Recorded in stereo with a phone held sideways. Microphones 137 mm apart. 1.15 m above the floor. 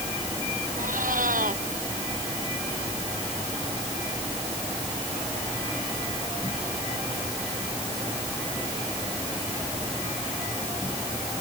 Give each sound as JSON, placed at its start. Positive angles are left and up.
{"t": 0.8, "sound": "a cat meowing", "side_deg": -80}